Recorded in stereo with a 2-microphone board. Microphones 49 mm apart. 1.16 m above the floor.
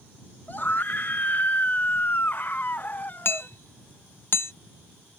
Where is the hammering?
60° left (ahead or behind).